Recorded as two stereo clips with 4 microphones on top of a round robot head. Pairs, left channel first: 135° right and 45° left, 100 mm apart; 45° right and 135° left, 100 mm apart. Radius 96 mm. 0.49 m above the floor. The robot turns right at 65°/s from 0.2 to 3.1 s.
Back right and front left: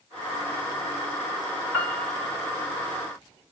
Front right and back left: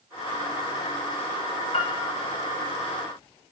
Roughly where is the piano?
Ahead right.